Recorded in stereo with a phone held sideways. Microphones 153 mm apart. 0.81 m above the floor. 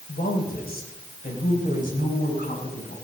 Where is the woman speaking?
80° left, 3.5 m; by 3.0 s 60° left (ahead or behind), 6.5 m.